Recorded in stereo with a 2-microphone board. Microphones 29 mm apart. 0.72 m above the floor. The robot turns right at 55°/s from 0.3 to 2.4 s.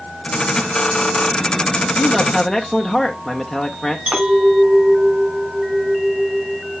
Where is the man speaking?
20° left (ahead or behind), 0.7 m; by 4.0 s 15° left (ahead or behind), 0.7 m.